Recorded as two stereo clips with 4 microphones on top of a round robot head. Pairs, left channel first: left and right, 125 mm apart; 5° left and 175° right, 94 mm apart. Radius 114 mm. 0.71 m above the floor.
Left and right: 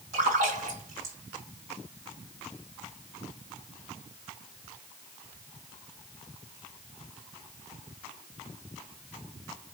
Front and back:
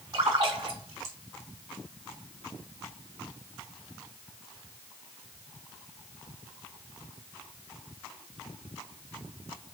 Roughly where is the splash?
Behind right.